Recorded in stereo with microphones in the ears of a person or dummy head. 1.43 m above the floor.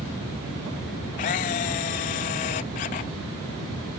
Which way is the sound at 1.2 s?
30° left (ahead or behind).